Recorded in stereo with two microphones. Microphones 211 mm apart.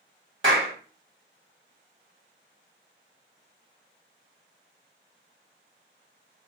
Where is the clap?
70° right (ahead or behind), 1.2 m.